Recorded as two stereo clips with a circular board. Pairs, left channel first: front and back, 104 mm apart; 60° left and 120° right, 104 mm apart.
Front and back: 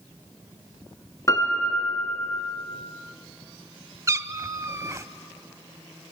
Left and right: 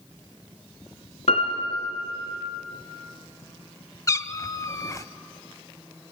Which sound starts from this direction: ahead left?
A piano, at 1.3 s.